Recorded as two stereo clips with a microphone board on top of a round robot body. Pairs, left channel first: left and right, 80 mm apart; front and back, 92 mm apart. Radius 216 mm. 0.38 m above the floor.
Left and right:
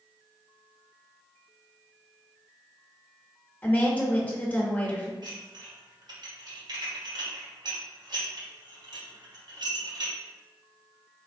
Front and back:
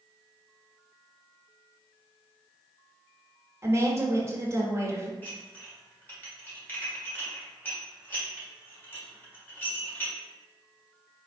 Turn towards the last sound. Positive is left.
turn(degrees=-65)